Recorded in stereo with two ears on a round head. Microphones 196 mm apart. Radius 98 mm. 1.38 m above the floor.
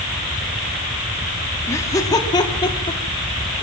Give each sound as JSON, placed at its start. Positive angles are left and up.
{"t": 1.7, "sound": "laughter", "side_deg": 15, "distance_m": 3.5}